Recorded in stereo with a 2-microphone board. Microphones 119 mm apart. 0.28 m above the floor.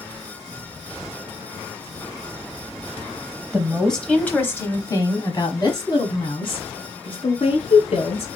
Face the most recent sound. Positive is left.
turn(degrees=60)  # may be behind; listen again after turning